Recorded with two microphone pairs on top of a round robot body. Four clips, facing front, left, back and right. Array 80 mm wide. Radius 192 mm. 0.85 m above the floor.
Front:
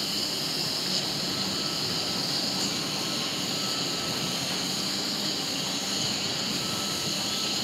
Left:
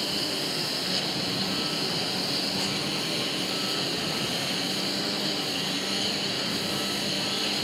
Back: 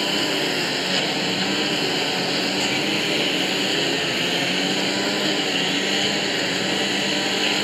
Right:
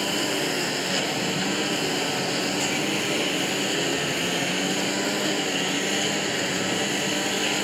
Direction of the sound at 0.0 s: 155° right.